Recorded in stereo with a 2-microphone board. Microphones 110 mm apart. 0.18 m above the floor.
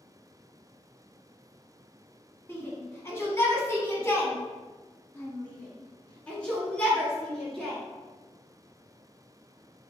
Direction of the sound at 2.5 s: 20° left (ahead or behind).